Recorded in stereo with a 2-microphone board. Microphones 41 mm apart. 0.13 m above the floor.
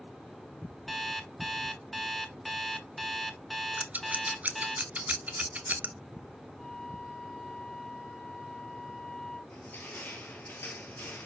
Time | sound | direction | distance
0.9 | an alarm clock | 5° left (ahead or behind) | 0.5 m
3.8 | scissors | 40° right (ahead or behind) | 0.5 m
6.6 | a flute | 15° left (ahead or behind) | 1.2 m
9.5 | crushing | 50° left (ahead or behind) | 0.9 m